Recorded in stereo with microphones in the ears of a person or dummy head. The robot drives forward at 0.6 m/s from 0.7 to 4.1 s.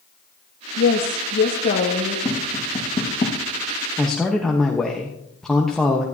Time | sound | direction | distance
0.8 | a woman speaking | 50° left (ahead or behind) | 1.3 m
2.2 | tapping | 20° left (ahead or behind) | 2.5 m
4.0 | a man speaking | centre (ahead or behind) | 1.2 m